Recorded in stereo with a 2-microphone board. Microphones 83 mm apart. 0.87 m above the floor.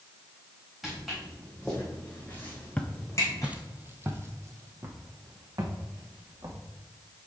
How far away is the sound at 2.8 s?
About 1.0 m.